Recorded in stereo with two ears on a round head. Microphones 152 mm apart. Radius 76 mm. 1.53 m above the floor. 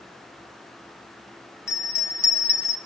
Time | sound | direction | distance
1.7 | a bell | 15° left (ahead or behind) | 0.7 m